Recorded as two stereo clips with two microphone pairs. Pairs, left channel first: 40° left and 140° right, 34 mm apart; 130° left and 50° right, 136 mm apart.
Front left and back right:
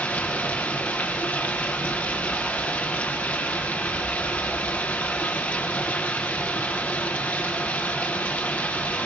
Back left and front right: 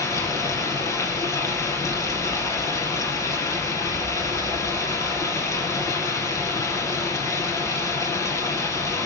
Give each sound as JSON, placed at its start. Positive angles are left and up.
{"t": 0.0, "sound": "running water", "azimuth_deg": 65, "distance_m": 3.0}